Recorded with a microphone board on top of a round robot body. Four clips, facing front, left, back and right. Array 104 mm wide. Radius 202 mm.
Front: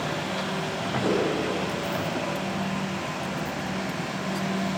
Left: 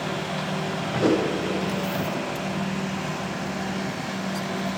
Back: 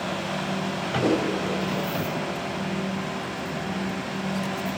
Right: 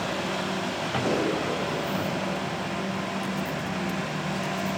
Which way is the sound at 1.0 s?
115° left.